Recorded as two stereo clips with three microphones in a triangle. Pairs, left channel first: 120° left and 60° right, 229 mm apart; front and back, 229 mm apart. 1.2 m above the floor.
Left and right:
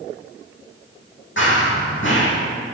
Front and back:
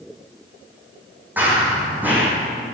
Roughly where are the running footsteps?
Left.